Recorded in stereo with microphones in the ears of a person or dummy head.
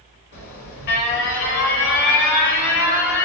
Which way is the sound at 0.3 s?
55° left (ahead or behind).